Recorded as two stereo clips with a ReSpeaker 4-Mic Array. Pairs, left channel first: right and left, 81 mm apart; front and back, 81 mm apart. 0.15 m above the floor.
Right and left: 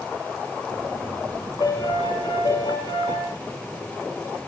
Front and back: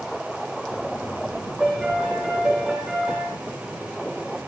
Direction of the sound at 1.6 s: 100° right.